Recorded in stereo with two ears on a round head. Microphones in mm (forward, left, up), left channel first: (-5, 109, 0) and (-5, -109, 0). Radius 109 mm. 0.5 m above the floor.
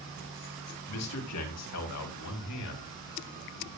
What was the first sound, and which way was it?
A man speaking, 70° left (ahead or behind).